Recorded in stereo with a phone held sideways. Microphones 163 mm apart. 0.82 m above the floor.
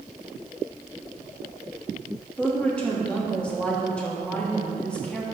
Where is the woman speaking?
10° left (ahead or behind), 1.5 m.